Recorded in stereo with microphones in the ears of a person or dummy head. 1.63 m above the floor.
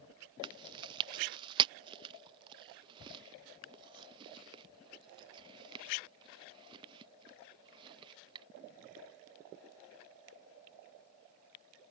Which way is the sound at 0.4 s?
25° right (ahead or behind).